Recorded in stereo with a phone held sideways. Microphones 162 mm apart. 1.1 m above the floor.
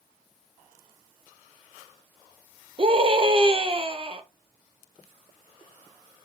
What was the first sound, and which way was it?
A scream, 35° right (ahead or behind).